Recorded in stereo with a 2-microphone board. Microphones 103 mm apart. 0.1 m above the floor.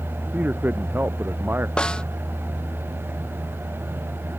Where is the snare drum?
10° left (ahead or behind).